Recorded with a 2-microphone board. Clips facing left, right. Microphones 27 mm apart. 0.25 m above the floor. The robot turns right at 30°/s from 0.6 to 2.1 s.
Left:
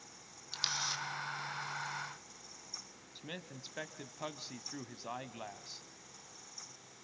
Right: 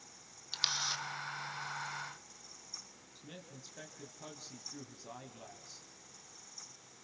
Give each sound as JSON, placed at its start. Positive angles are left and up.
{"t": 0.5, "sound": "a camera shutter", "side_deg": -20, "distance_m": 2.0}
{"t": 3.1, "sound": "a man speaking", "side_deg": 45, "distance_m": 1.8}